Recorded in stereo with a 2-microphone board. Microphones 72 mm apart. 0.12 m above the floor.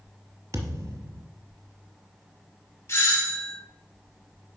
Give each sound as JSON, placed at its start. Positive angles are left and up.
{"t": 0.5, "sound": "a thud", "side_deg": -45, "distance_m": 1.1}
{"t": 2.9, "sound": "a doorbell", "side_deg": 40, "distance_m": 2.0}